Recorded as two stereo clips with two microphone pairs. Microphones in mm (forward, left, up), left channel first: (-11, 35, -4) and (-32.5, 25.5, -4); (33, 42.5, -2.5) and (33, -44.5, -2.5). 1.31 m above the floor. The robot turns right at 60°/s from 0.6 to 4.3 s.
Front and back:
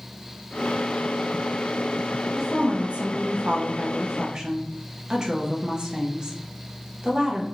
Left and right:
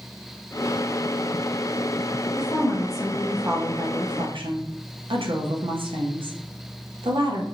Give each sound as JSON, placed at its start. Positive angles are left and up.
{"t": 2.4, "sound": "a woman speaking", "azimuth_deg": 145, "distance_m": 0.8}